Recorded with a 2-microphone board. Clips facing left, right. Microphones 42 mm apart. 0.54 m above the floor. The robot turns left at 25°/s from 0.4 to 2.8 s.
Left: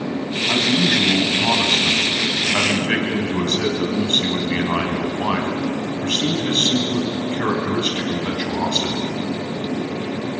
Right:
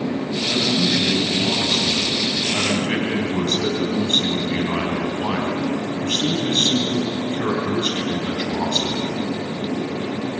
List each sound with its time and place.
0.5 s a man speaking: 90° left, 4 m; by 9.1 s 30° left, 4 m